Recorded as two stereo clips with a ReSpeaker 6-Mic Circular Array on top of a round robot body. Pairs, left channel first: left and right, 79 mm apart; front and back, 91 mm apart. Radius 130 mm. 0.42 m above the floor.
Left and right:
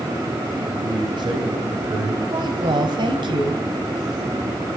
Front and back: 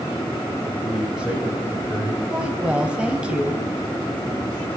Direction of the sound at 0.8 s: 95° right.